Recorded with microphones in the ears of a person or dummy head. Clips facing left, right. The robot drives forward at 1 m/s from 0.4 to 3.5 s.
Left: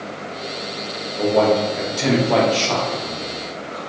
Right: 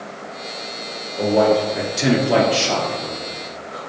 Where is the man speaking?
5° right (ahead or behind), 1.3 m.